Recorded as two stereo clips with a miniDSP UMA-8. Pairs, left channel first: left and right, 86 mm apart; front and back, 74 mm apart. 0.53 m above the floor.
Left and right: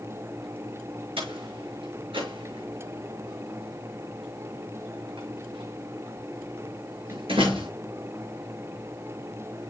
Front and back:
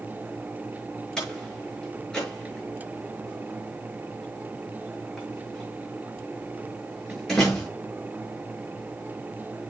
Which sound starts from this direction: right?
A door slam, at 1.2 s.